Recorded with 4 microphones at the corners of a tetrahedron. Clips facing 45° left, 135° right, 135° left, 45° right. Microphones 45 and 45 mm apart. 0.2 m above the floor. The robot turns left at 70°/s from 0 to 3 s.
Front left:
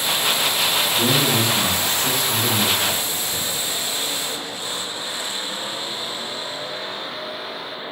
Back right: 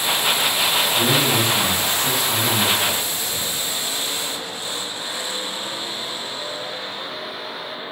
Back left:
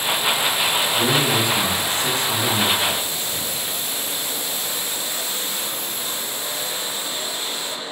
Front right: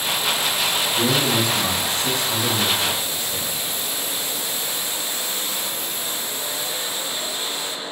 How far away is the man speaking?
About 1.5 m.